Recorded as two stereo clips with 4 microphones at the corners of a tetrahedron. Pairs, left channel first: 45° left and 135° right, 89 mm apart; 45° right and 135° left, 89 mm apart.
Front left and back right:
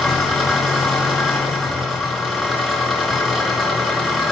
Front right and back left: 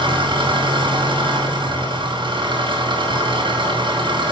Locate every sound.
0.0 s an engine running: 135° left, 2.5 m